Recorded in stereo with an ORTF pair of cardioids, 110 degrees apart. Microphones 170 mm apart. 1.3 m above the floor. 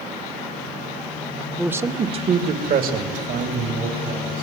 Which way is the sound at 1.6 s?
5° right.